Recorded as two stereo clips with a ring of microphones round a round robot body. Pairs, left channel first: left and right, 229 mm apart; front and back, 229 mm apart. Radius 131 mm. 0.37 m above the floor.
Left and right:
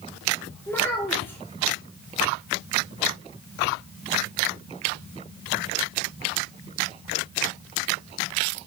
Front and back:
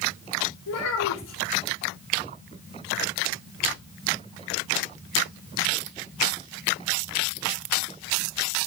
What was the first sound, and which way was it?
A child speaking, 10° left.